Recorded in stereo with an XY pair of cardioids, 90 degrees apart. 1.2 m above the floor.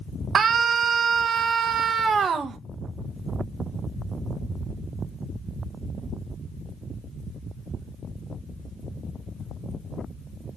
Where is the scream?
55° right, 1.1 m.